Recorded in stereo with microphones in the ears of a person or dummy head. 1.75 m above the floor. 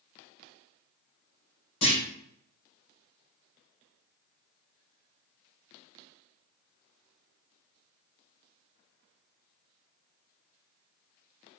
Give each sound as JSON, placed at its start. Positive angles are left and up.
{"t": 1.8, "sound": "a clunk", "side_deg": 40, "distance_m": 1.4}